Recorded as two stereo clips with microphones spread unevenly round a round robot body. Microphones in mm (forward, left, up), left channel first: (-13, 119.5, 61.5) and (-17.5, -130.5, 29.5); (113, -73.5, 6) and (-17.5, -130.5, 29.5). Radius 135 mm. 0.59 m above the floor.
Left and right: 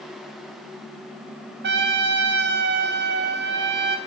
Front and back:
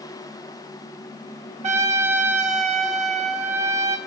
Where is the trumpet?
125° right, 1.3 m.